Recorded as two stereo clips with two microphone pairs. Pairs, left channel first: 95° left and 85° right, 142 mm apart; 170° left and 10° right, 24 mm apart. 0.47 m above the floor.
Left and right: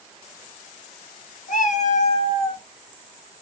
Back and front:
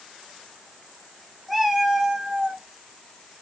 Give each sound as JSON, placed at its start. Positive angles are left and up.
{"t": 1.5, "sound": "a cat meowing", "azimuth_deg": 85, "distance_m": 0.9}